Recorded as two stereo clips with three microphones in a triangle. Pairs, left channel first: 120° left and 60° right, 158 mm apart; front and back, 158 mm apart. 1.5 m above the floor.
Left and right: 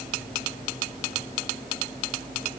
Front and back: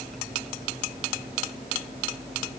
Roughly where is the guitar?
No guitar in this recording.